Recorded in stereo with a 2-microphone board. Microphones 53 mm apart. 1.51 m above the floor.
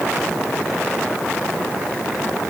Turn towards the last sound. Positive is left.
No sound to turn to.